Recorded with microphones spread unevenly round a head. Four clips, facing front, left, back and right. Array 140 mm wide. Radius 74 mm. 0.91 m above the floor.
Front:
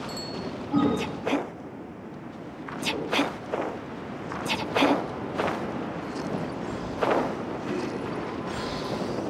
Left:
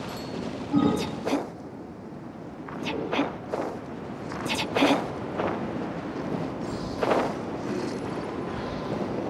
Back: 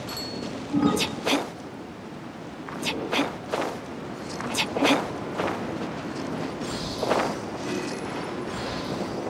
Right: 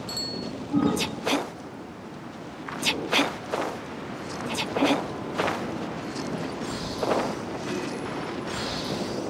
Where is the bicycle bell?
95° right.